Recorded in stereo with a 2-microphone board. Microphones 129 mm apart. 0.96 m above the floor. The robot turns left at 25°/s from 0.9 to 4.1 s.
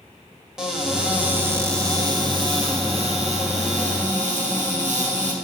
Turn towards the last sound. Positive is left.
turn(degrees=-85)